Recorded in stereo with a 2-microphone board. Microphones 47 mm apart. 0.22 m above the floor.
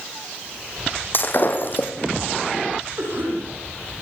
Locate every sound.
1.1 s breaking glass: 45° left (ahead or behind), 3 m
3.0 s a cough: 65° right (ahead or behind), 9 m